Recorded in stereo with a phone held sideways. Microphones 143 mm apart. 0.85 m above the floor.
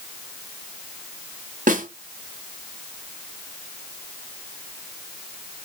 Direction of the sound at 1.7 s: 70° right (ahead or behind).